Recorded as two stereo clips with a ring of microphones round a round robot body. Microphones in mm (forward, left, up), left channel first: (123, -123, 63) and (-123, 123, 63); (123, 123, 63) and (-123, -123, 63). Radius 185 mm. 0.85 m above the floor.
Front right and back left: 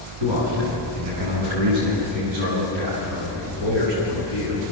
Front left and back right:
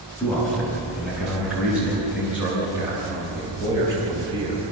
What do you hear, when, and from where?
0.2 s a man speaking: 135° left, 8 m; by 4.6 s 150° left, 7 m